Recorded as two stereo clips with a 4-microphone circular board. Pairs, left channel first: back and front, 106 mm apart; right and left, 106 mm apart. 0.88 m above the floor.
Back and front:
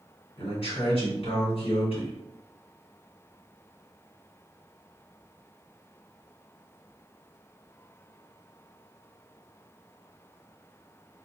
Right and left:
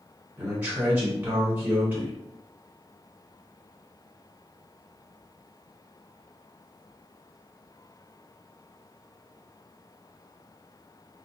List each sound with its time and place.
0.4 s a man speaking: 165° left, 1.6 m